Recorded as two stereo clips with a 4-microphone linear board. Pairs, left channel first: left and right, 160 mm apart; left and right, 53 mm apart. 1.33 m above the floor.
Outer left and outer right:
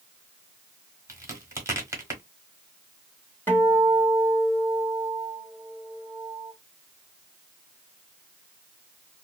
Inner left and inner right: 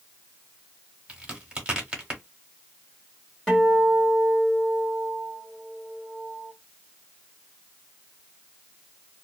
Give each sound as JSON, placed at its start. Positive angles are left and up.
{"t": 1.1, "sound": "a crack", "side_deg": -15, "distance_m": 1.2}
{"t": 3.5, "sound": "a guitar", "side_deg": 15, "distance_m": 1.4}